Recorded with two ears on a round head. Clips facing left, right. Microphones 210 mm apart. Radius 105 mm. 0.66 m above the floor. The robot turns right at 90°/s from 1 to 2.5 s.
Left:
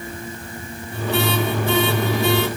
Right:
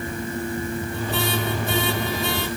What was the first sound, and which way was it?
Only background noise.